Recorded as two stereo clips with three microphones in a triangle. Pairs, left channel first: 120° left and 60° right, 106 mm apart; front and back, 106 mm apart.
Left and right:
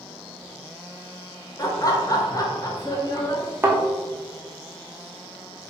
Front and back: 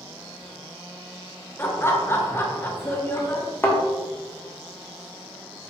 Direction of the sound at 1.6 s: 70° left.